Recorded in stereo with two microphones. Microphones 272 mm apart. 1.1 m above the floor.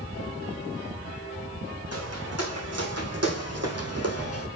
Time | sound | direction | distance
1.9 | footsteps | 65° right (ahead or behind) | 3.5 m